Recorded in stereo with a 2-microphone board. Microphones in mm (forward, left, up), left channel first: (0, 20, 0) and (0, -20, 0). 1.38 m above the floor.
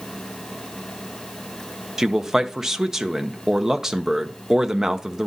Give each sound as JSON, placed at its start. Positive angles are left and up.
{"t": 2.0, "sound": "a man speaking", "side_deg": -10, "distance_m": 0.7}